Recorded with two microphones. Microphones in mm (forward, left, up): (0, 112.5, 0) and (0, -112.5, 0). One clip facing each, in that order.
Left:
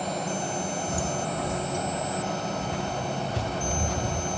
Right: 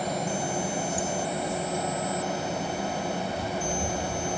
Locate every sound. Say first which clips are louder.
0.9 s footsteps: even; 60° left (ahead or behind), 1.1 m; by 4.4 s 75° left (ahead or behind), 2.5 m